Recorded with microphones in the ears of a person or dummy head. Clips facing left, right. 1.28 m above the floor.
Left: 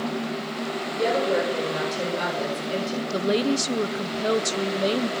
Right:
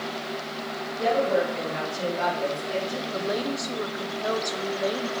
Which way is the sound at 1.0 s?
55° left (ahead or behind).